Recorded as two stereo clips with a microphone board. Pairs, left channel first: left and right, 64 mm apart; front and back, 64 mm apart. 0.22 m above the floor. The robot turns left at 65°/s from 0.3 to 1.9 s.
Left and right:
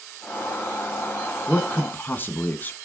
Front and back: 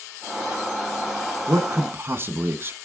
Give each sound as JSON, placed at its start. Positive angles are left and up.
{"t": 1.5, "sound": "a man speaking", "azimuth_deg": 170, "distance_m": 1.9}